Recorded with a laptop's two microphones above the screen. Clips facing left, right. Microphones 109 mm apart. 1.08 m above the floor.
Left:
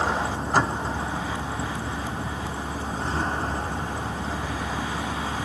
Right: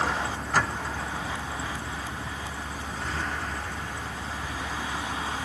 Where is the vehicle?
25° left (ahead or behind); by 5.5 s 35° left (ahead or behind).